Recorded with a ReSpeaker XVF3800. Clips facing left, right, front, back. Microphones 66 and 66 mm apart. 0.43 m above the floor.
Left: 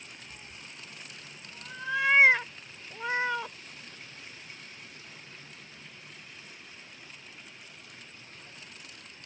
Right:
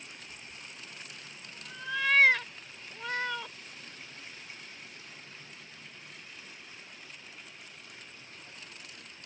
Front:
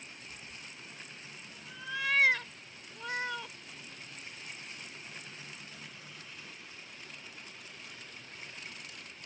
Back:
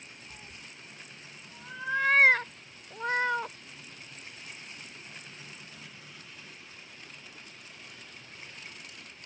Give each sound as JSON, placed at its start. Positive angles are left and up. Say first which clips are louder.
{"t": 0.3, "sound": "a cat meowing", "louder": "even, even", "azimuth_deg": 150}